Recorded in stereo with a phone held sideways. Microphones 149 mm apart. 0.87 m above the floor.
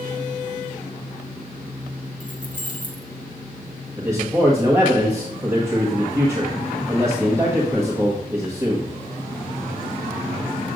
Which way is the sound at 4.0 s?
20° right (ahead or behind).